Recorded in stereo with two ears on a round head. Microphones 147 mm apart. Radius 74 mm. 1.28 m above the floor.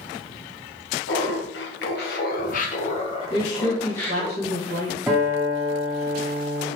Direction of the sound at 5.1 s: Centre (ahead or behind).